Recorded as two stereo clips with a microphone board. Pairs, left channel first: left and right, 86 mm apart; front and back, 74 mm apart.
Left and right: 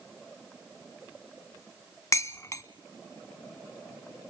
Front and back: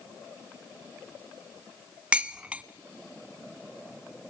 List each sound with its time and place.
2.1 s dishes clattering: 115° left, 0.9 m